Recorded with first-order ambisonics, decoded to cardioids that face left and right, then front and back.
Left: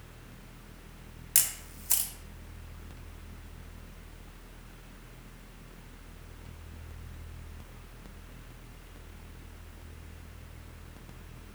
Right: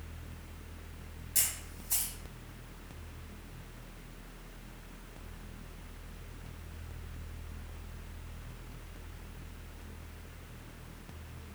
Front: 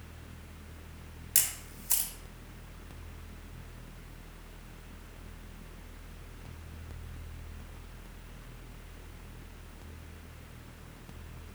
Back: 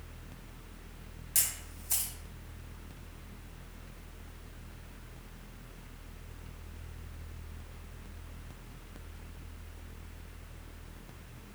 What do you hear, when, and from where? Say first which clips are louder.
1.4 s a camera shutter: left 4 dB, front 2 dB; 65° left, 0.7 m